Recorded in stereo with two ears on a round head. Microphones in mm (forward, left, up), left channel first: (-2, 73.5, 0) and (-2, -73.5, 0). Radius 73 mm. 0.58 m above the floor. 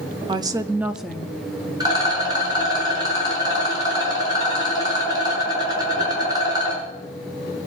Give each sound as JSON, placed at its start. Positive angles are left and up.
{"t": 0.3, "sound": "a woman speaking", "side_deg": -30, "distance_m": 0.8}
{"t": 1.8, "sound": "a rattle", "side_deg": -25, "distance_m": 6.0}